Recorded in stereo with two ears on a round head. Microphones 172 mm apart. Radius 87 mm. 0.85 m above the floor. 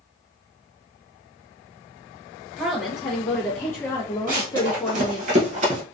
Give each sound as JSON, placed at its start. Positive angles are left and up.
{"t": 2.6, "sound": "a woman speaking", "side_deg": 5, "distance_m": 1.3}
{"t": 4.3, "sound": "running footsteps", "side_deg": -45, "distance_m": 1.5}